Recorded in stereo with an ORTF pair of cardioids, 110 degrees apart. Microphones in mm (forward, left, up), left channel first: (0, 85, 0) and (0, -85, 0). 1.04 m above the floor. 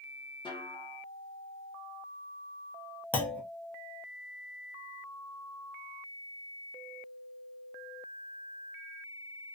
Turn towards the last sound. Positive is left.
turn(degrees=10)